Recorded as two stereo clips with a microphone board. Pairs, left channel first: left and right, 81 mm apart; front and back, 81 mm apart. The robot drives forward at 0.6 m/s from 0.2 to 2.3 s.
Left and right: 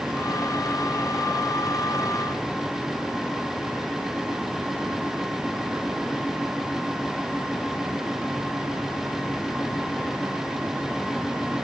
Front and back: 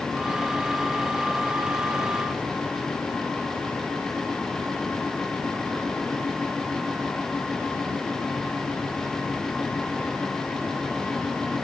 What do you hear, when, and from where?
Only background noise.